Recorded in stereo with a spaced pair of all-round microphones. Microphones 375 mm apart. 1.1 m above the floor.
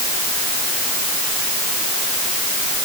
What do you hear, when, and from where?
Only background noise.